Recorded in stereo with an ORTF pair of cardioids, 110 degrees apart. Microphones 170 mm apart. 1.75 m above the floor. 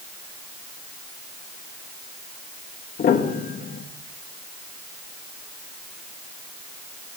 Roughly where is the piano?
Ahead left.